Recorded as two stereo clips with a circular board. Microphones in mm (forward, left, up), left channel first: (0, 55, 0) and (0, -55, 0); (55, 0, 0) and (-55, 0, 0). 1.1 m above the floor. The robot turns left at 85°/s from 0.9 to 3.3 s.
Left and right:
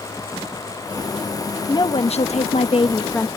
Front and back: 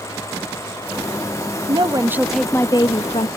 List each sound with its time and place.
1.7 s a woman speaking: 145° left; by 3.3 s 10° left